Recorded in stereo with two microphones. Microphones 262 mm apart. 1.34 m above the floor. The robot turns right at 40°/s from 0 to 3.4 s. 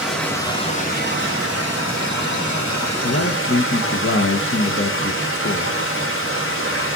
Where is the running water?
5° right, 3 m; by 7.0 s 130° left, 3 m.